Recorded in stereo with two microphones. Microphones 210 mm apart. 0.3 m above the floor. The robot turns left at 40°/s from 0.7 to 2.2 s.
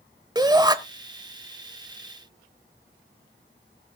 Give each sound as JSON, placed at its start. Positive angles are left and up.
{"t": 0.3, "sound": "a shout", "side_deg": -20, "distance_m": 1.0}